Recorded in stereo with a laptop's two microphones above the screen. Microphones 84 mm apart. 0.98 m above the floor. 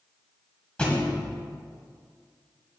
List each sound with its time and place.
0.8 s a thud: 10° left (ahead or behind), 1.9 m